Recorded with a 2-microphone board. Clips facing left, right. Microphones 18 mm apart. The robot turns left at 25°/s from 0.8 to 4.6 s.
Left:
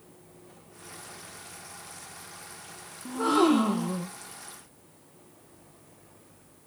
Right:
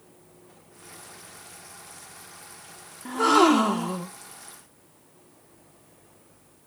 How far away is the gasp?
About 1.3 m.